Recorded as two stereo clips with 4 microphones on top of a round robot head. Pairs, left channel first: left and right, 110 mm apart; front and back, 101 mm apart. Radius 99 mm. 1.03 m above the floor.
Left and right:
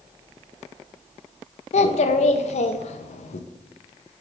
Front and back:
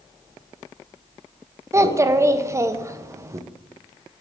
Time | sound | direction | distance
1.7 | a child speaking | 120° left | 0.6 m